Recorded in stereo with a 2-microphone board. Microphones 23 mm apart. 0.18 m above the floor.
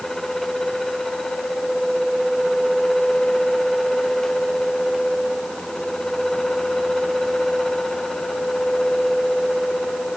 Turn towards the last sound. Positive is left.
No sound to turn to.